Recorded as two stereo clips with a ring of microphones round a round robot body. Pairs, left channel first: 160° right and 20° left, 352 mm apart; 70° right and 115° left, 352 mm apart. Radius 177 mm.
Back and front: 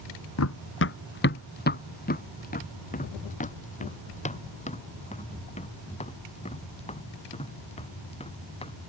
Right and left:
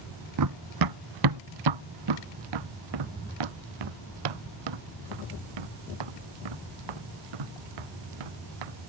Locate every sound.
0.4 s running footsteps: 150° left; by 8.8 s 130° left